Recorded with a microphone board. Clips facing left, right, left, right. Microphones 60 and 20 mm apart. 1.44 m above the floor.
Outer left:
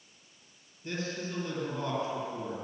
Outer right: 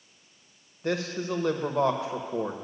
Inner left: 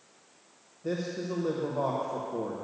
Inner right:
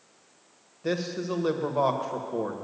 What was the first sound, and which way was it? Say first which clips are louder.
A man speaking: outer right 7 dB, inner right 3 dB; 80° right.